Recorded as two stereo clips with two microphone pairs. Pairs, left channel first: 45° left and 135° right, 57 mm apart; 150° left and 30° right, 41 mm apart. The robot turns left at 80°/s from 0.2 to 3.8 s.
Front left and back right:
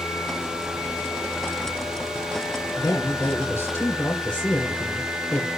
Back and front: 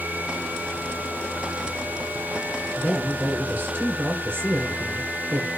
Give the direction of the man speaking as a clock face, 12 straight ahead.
9 o'clock.